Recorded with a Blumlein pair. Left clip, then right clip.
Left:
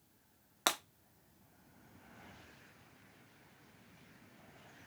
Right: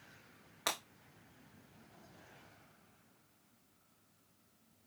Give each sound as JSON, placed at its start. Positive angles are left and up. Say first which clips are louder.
{"t": 0.7, "sound": "breaking glass", "louder": "left 4 dB", "azimuth_deg": 25, "distance_m": 1.1}